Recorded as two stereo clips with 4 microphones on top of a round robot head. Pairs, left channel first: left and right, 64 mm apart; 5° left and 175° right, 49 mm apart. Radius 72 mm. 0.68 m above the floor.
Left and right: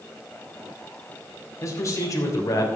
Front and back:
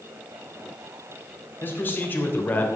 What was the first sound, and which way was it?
A man speaking, 50° left.